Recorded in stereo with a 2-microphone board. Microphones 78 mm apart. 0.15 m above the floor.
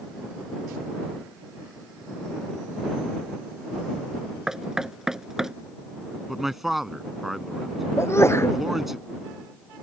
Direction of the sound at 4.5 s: 5° right (ahead or behind).